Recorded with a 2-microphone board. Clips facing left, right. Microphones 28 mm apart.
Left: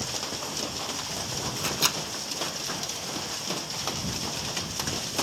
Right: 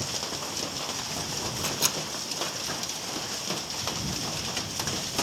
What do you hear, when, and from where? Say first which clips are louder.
1.6 s a microwave: left 3 dB; 25° left (ahead or behind)